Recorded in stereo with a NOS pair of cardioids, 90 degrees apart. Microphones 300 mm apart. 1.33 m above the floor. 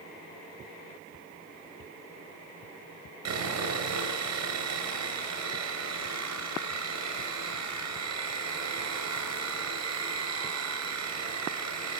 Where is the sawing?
60° right, 7.5 m.